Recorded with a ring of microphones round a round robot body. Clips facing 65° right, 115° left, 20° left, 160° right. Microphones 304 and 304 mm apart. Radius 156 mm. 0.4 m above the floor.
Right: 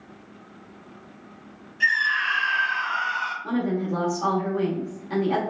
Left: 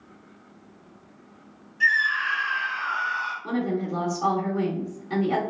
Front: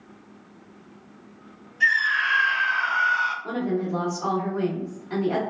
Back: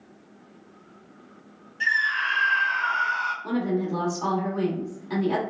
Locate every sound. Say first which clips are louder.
1.8 s a scream: left 2 dB, front 2 dB; 140° right, 1.7 m
3.4 s a woman speaking: right 1 dB, back 1 dB; 155° right, 1.0 m